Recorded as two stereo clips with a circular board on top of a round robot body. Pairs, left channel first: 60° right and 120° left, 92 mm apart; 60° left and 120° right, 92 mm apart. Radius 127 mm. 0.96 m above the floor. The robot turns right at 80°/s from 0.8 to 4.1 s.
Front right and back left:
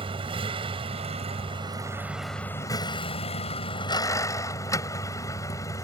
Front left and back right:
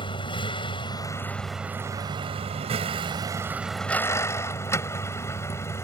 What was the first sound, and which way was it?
A vehicle, 95° left.